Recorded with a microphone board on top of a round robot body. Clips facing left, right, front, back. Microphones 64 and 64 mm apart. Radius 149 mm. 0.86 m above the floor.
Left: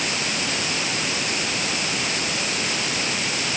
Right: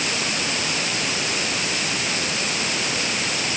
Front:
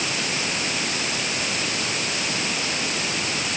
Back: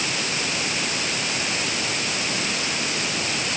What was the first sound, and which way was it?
Only background noise.